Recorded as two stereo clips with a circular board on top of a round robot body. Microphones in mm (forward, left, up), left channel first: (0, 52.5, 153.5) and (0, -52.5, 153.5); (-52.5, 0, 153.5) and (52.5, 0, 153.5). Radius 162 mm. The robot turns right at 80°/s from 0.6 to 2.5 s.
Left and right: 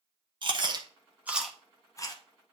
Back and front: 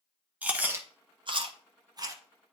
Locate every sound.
0.4 s chewing: 70° right, 1.3 m; by 2.2 s 55° left, 1.3 m